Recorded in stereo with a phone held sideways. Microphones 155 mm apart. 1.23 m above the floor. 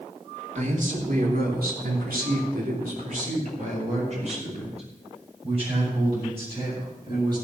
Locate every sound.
0.6 s a man speaking: 55° right (ahead or behind), 3.5 m; by 7.3 s 35° right (ahead or behind), 9.5 m